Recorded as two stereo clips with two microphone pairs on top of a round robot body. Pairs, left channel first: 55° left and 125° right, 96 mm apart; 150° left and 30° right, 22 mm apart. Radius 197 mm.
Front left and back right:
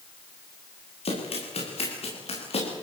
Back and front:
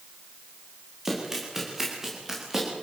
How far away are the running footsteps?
About 9 m.